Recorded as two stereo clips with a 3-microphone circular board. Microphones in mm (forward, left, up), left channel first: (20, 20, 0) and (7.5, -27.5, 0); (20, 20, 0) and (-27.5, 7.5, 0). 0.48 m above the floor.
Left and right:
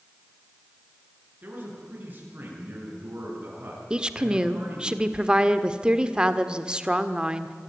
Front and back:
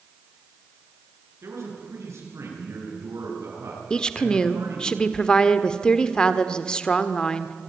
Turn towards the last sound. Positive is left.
turn(degrees=-45)